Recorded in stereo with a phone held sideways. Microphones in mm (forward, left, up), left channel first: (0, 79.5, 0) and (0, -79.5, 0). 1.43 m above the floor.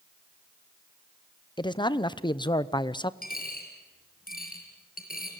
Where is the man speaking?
30° left (ahead or behind), 0.8 m.